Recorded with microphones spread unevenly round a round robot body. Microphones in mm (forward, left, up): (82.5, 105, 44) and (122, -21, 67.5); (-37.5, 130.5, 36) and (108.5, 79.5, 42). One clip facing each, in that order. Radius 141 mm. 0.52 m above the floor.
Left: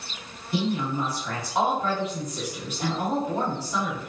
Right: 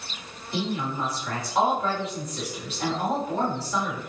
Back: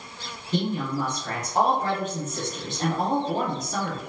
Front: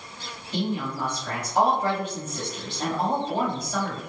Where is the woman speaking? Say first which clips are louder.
Left 3 dB, back 2 dB; 170° left, 1.7 m.